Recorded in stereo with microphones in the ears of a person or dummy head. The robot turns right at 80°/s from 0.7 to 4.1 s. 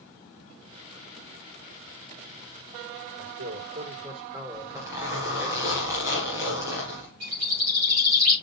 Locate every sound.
3.2 s a man speaking: 105° right, 3.5 m; by 5.5 s 30° right, 3.5 m
4.5 s a zipper: 15° right (ahead or behind), 3.5 m
7.2 s a bird: 45° right (ahead or behind), 3 m